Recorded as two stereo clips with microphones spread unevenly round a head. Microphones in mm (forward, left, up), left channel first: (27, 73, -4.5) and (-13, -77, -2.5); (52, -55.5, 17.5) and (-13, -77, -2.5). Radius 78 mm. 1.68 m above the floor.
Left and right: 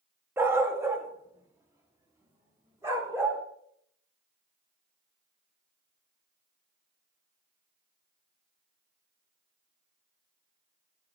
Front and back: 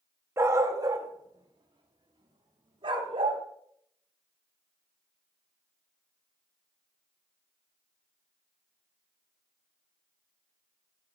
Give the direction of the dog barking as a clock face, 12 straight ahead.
5 o'clock.